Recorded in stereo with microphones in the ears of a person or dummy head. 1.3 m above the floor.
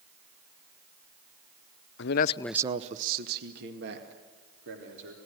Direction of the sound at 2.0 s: 65° left (ahead or behind).